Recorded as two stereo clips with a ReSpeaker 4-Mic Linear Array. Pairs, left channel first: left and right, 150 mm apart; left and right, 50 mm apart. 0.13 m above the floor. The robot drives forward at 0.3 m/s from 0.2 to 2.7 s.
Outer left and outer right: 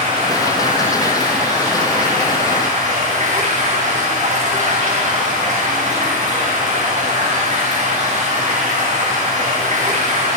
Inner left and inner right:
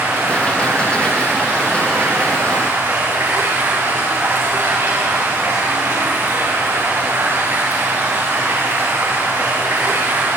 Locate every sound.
0.0 s running water: 45° right (ahead or behind), 6.5 m; by 10.4 s 50° right (ahead or behind), 6 m